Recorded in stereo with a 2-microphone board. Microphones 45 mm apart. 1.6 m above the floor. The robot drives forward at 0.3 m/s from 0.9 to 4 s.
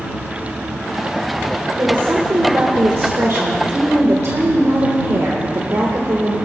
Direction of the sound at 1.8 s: 60° right (ahead or behind).